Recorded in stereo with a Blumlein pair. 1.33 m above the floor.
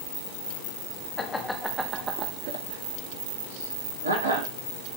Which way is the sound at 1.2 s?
20° left.